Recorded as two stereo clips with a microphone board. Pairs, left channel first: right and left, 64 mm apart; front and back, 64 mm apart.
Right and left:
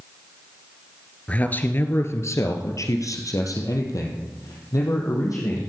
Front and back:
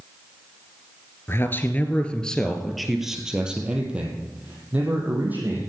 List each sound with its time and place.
1.3 s a man speaking: 30° right, 1.6 m; by 5.6 s 120° right, 4.5 m